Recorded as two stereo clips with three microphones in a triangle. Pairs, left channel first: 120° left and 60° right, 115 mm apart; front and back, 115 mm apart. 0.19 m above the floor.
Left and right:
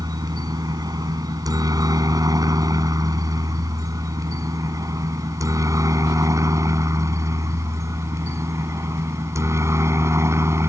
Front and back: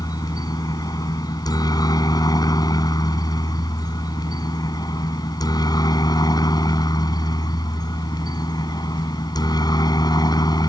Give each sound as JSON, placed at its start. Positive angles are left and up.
{"t": 0.0, "sound": "a helicopter", "azimuth_deg": -30}